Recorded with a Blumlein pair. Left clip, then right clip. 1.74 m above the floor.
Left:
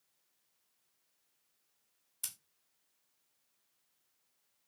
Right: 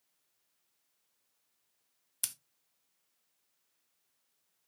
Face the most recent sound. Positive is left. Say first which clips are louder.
# right 5 dB
turn(degrees=-25)